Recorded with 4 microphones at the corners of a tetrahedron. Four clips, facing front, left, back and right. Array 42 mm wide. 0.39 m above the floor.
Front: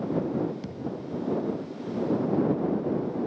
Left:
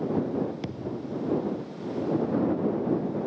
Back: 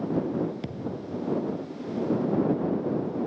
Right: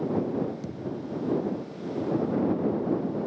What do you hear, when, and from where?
0.6 s a thud: 120° left